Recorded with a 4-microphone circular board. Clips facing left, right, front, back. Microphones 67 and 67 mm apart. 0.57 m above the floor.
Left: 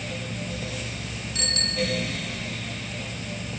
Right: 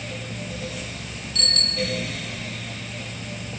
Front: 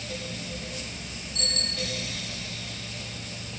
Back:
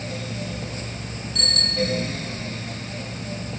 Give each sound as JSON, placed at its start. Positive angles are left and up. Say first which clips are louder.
{"t": 1.4, "sound": "a bicycle bell", "louder": "even, back 9 dB", "azimuth_deg": 160, "distance_m": 3.5}